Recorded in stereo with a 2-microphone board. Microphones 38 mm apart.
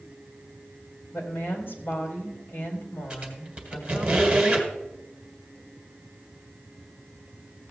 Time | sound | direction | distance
1.1 | a woman speaking | 60° left (ahead or behind) | 3.5 m
3.1 | a squeak | 25° right (ahead or behind) | 1.9 m